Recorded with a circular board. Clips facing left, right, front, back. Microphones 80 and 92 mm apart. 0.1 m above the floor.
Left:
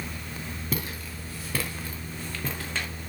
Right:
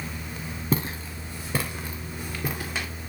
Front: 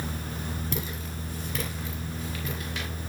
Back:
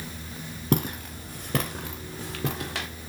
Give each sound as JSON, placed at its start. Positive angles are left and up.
{"t": 0.7, "sound": "footsteps", "azimuth_deg": -150, "distance_m": 3.5}